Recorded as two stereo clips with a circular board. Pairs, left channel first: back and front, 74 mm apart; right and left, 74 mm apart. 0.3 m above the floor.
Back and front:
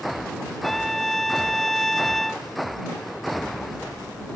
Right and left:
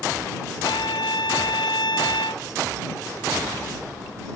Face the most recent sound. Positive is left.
turn(degrees=-90)